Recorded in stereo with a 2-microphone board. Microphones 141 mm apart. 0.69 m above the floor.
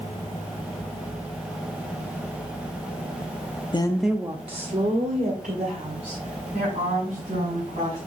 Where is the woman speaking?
35° left (ahead or behind), 0.7 m; by 8.0 s 75° right (ahead or behind), 5.5 m.